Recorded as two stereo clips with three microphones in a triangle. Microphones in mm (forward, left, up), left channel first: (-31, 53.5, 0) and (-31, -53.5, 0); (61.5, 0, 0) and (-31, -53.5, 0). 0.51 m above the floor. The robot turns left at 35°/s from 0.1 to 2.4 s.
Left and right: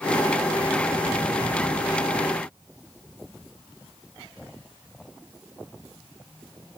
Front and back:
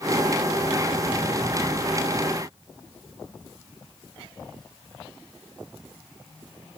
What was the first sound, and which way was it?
Only background noise.